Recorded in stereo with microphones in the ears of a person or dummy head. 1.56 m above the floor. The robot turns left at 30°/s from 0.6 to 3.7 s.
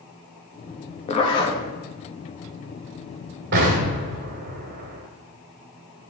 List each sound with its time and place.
1.1 s a zipper: 35° left (ahead or behind), 1.4 m; by 1.6 s 20° left (ahead or behind), 1.4 m
3.5 s an explosion: 55° right (ahead or behind), 2.0 m